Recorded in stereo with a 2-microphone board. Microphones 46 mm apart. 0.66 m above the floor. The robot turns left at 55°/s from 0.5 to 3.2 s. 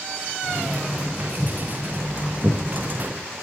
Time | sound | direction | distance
1.4 | footsteps | 55° right (ahead or behind) | 4 m